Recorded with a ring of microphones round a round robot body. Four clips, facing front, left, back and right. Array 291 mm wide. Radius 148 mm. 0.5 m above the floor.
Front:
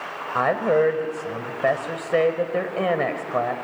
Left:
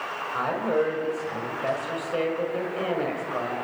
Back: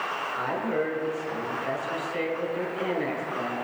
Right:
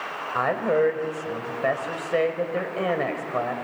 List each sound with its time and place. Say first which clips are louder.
0.3 s a woman speaking: right 3 dB, front 10 dB; 20° right, 2.5 m